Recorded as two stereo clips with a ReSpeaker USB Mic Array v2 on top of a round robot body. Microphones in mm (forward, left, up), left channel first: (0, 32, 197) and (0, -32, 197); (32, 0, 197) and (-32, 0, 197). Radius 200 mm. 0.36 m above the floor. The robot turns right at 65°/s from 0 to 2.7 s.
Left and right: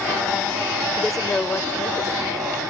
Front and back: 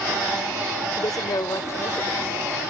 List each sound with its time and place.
1.0 s a woman speaking: 10° right; by 2.2 s 75° left